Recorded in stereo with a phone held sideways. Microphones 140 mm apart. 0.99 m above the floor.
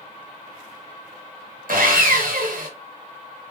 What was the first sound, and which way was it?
Sawing, 75° right (ahead or behind).